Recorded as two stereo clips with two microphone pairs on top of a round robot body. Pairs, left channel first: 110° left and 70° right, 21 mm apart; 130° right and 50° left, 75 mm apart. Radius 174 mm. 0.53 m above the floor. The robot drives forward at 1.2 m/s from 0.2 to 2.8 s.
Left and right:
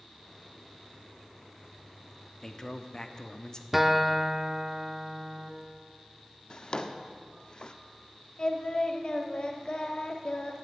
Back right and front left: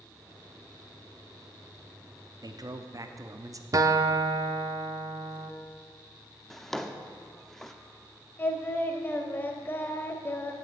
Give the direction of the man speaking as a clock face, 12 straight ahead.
10 o'clock.